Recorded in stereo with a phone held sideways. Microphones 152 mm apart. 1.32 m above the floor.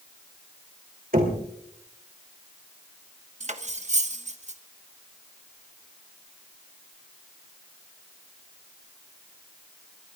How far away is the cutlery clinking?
About 1.1 m.